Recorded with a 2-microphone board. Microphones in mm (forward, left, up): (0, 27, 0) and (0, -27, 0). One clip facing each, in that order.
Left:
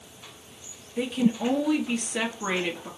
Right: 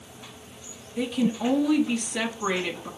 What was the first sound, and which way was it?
A woman speaking, 10° left (ahead or behind).